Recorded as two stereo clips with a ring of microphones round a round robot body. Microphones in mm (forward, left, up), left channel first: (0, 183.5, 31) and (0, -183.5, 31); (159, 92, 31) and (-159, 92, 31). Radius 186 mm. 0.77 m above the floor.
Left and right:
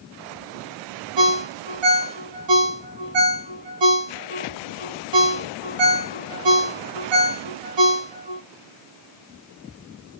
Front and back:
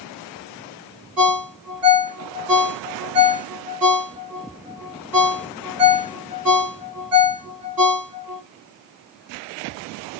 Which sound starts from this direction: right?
A ringtone, at 1.2 s.